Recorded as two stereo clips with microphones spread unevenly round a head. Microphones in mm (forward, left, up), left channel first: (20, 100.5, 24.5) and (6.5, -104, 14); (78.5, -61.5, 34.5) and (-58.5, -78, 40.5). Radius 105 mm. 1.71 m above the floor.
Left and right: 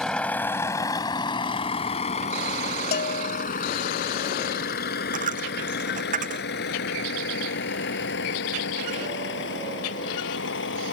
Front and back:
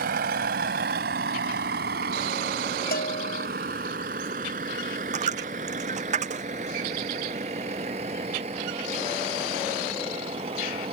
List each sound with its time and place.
0.0 s a vehicle: 170° left; by 10.9 s 125° left
2.9 s a bell: 40° left
5.1 s a dropped coin: 150° right